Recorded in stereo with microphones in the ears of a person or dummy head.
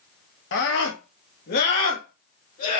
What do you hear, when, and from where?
0.5 s a scream: 60° left (ahead or behind), 1.7 m; by 2.8 s 45° left (ahead or behind), 2.5 m